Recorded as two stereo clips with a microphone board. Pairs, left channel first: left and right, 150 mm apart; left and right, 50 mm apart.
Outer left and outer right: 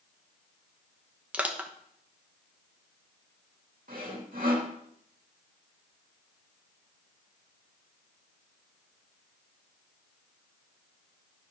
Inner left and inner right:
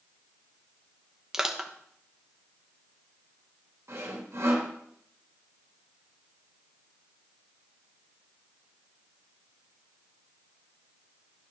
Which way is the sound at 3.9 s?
70° right (ahead or behind).